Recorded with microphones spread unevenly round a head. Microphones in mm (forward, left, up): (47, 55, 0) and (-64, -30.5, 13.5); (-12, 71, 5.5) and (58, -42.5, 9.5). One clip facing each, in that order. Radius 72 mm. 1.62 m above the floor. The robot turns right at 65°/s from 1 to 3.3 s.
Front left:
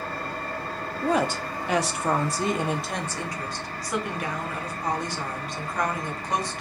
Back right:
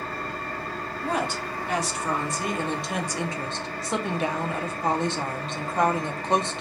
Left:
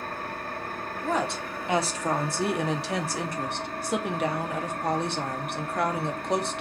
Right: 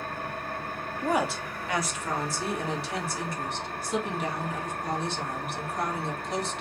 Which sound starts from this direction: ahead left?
An engine running, at 0.0 s.